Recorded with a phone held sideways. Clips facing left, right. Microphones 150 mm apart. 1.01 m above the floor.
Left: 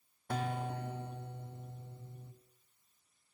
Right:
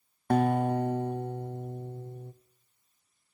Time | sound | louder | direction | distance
0.3 | a guitar | right 13 dB | 55° right (ahead or behind) | 0.8 m